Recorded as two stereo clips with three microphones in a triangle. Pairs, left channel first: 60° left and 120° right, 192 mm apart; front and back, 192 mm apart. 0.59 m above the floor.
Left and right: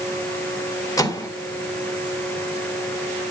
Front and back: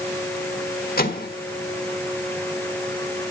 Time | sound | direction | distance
1.0 | a microwave | 10° right | 1.5 m